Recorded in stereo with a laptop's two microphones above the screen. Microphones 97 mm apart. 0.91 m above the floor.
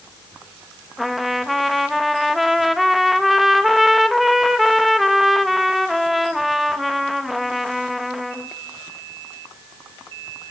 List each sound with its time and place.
1.0 s a trumpet: centre (ahead or behind), 0.6 m